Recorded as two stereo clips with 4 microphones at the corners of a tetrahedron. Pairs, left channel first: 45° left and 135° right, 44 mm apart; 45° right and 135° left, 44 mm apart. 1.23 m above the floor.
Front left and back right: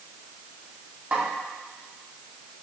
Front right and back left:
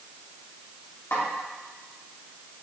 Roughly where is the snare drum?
Right.